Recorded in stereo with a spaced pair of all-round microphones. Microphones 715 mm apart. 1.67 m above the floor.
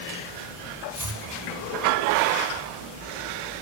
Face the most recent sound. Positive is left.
turn(degrees=-25)  # may be behind; listen again after turning